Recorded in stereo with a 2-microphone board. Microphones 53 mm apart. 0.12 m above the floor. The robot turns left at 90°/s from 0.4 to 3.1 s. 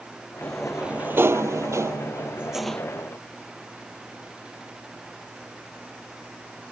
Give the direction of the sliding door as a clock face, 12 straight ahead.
11 o'clock.